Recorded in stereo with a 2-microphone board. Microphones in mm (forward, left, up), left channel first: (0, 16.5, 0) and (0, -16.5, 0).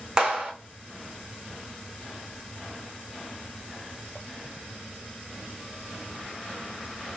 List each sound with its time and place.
0.2 s a clap: 25° right (ahead or behind), 0.9 m